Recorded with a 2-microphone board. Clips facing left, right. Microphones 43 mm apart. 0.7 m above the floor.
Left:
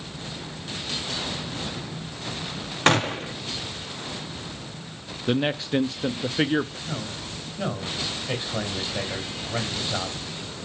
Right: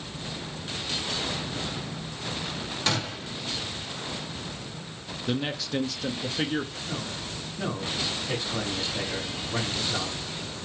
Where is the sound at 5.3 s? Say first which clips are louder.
Left 6 dB; 25° left (ahead or behind), 0.6 m.